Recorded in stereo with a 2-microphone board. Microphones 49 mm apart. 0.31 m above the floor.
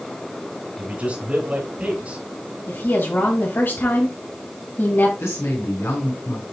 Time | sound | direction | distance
0.8 | a man speaking | 35° right (ahead or behind) | 2.5 m
2.7 | a woman speaking | 45° left (ahead or behind) | 2 m
5.2 | a woman speaking | 65° left (ahead or behind) | 3.5 m